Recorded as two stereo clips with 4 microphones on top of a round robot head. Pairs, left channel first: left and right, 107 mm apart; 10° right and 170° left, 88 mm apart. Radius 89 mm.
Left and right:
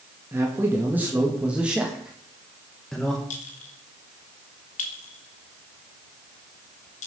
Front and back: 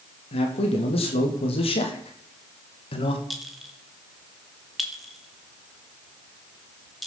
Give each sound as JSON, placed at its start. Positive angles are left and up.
{"t": 0.3, "sound": "a man speaking", "azimuth_deg": -20, "distance_m": 3.5}
{"t": 3.3, "sound": "a clink", "azimuth_deg": 80, "distance_m": 2.5}